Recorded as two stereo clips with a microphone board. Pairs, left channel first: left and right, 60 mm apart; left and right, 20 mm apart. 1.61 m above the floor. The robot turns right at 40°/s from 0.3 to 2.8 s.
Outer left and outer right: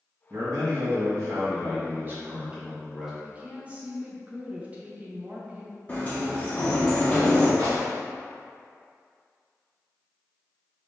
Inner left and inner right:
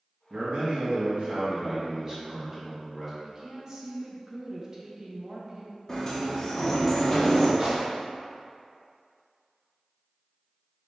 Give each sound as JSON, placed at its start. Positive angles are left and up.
{"t": 0.3, "sound": "a man speaking", "azimuth_deg": -105, "distance_m": 1.6}
{"t": 3.2, "sound": "a woman speaking", "side_deg": -25, "distance_m": 0.8}
{"t": 5.9, "sound": "a sliding door", "side_deg": 25, "distance_m": 1.1}
{"t": 7.6, "sound": "a gunshot", "side_deg": -55, "distance_m": 1.3}